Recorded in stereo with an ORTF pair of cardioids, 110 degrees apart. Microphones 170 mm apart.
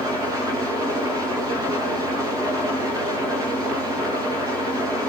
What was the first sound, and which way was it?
An engine running, 20° right.